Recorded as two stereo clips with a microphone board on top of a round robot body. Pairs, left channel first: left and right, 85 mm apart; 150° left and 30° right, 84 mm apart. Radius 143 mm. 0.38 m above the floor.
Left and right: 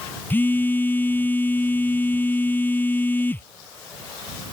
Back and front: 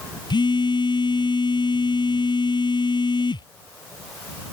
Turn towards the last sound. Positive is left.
turn(degrees=155)